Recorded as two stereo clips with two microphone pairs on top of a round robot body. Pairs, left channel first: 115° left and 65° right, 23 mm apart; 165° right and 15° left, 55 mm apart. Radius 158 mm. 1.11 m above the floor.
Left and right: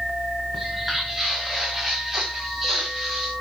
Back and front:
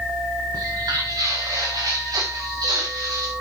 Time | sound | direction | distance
0.5 | footsteps | 15° left | 6.5 m